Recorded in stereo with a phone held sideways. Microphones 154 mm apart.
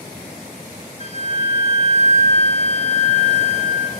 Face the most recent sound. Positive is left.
turn(degrees=45)  # may be behind; listen again after turning